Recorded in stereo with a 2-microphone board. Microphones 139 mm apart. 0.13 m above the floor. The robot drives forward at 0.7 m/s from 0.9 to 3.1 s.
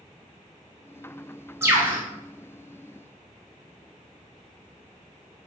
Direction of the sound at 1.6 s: 20° right (ahead or behind).